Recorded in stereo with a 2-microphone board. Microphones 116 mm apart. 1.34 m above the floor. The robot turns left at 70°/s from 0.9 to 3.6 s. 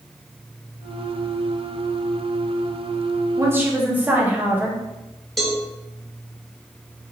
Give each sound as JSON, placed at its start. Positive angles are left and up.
{"t": 3.4, "sound": "a woman speaking", "side_deg": -30, "distance_m": 0.8}
{"t": 5.4, "sound": "a cowbell", "side_deg": 0, "distance_m": 0.8}